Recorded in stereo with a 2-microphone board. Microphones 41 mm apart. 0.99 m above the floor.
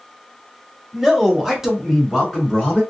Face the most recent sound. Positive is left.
turn(degrees=0)  # may be behind; listen again after turning